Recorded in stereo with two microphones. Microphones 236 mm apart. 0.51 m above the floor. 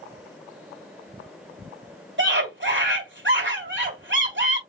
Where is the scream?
50° right (ahead or behind), 2.5 m.